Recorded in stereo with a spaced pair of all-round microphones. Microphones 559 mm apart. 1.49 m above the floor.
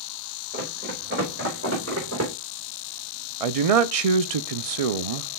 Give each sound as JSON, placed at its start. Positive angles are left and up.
{"t": 0.5, "sound": "running footsteps", "side_deg": -15, "distance_m": 5.0}
{"t": 3.4, "sound": "a man speaking", "side_deg": -80, "distance_m": 0.7}